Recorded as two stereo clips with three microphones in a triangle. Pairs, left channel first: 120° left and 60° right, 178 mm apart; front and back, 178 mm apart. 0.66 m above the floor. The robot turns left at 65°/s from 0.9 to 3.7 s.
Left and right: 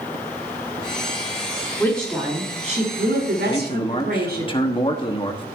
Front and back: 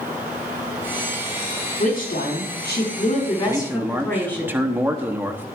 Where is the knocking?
I don't hear knocking.